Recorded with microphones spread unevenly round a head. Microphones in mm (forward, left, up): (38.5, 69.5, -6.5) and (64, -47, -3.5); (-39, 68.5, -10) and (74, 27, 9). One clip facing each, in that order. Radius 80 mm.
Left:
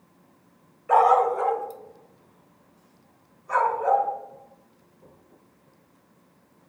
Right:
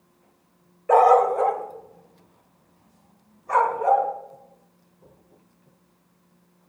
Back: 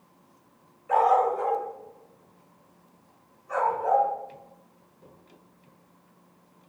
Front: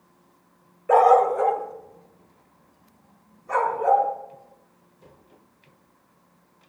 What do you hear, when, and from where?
0.9 s a dog barking: 35° right, 3 m; by 4.1 s 50° right, 6 m